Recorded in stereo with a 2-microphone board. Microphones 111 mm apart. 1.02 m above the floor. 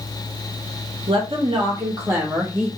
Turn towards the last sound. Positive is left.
turn(degrees=-5)  # may be behind; listen again after turning